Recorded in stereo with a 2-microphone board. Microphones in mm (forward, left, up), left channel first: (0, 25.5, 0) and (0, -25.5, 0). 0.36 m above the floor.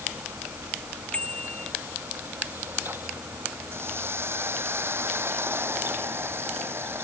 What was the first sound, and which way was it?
A bicycle bell, 25° left (ahead or behind).